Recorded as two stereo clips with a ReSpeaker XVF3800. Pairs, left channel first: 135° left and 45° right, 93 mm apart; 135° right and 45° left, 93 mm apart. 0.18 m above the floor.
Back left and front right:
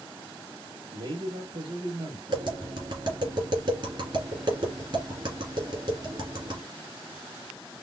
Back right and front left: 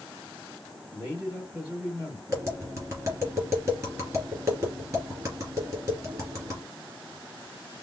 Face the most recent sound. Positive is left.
turn(degrees=-15)